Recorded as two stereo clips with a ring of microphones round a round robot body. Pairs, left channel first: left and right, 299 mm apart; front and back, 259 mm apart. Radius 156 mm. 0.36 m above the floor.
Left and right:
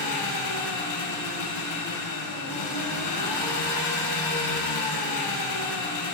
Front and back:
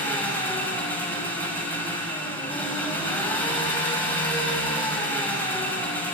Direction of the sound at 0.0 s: 85° left.